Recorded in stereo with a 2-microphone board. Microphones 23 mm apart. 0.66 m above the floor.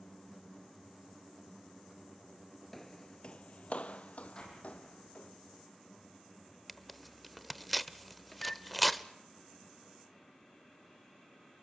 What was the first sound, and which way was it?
Footsteps, 10° left (ahead or behind).